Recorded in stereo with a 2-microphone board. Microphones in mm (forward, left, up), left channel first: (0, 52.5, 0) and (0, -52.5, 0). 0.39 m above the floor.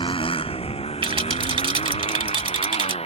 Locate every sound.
0.0 s a motorcycle: 55° left (ahead or behind); by 3.1 s 85° left
1.0 s a rattle: 60° right (ahead or behind)